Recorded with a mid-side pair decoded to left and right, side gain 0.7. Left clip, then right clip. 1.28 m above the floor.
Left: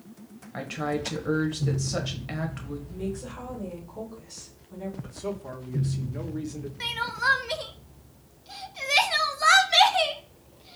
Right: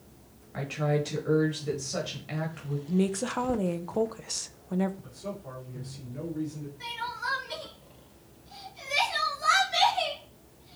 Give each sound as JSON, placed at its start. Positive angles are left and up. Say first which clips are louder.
{"t": 0.5, "sound": "a woman speaking", "louder": "right 1 dB", "azimuth_deg": 25, "distance_m": 1.6}
{"t": 2.9, "sound": "a woman speaking", "louder": "right 8 dB", "azimuth_deg": -55, "distance_m": 0.7}
{"t": 5.0, "sound": "a man speaking", "louder": "left 5 dB", "azimuth_deg": 40, "distance_m": 1.5}
{"t": 6.8, "sound": "crying", "louder": "left 7 dB", "azimuth_deg": 55, "distance_m": 0.8}